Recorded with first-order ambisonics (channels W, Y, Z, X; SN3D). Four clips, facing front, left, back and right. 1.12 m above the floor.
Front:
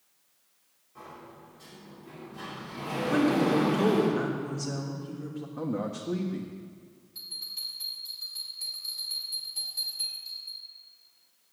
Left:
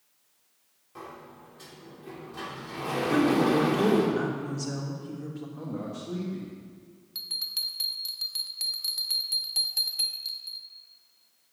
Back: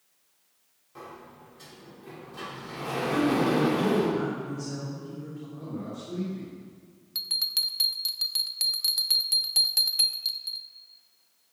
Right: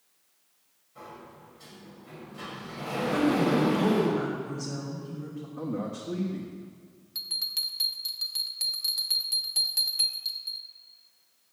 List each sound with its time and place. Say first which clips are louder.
0.9 s a sliding door: left 2 dB, back 2 dB; 120° left, 2.5 m
3.1 s a woman speaking: left 1 dB, even; 60° left, 3 m
5.6 s a man speaking: right 5 dB, front 6 dB; 10° right, 1.5 m
7.2 s a bell: right 1 dB, back 10 dB; straight behind, 0.7 m